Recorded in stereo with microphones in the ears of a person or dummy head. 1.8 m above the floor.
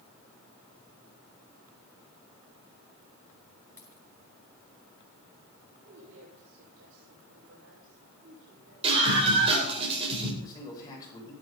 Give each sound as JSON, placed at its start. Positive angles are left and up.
{"t": 3.8, "sound": "a dropped coin", "side_deg": 10, "distance_m": 2.5}
{"t": 5.8, "sound": "a woman speaking", "side_deg": -70, "distance_m": 5.5}
{"t": 8.8, "sound": "a scream", "side_deg": -30, "distance_m": 9.0}
{"t": 10.4, "sound": "a man speaking", "side_deg": 25, "distance_m": 9.5}